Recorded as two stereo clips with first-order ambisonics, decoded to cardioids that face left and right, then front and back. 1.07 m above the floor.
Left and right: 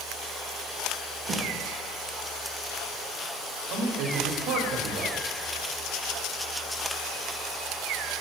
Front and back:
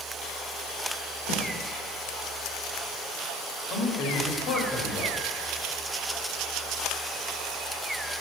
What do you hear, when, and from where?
1.3 s a snare drum: 30° right, 2.0 m
3.7 s a man speaking: 55° right, 1.8 m